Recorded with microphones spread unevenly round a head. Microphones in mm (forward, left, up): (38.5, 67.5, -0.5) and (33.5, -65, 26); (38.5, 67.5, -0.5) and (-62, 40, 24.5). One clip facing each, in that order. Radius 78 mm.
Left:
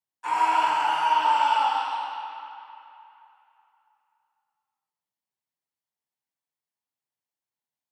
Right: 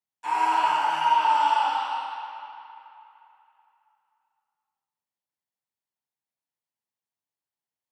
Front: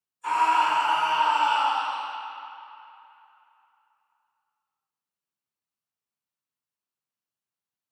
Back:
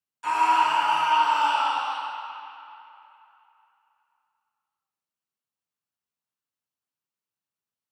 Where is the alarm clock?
No alarm clock in this recording.